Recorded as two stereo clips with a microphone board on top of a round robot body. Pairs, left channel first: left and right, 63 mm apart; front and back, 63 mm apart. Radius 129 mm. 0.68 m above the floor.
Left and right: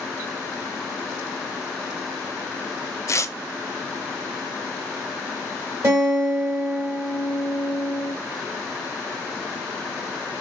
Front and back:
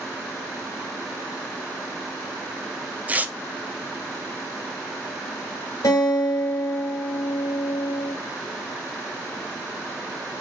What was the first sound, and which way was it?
Tearing paper, 120° left.